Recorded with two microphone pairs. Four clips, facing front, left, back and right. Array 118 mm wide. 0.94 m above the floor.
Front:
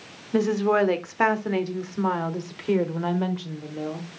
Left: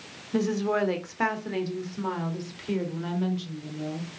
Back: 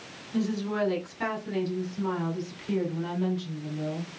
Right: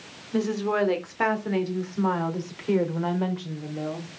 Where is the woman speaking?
Straight ahead, 2 m; by 4.1 s 45° right, 3 m.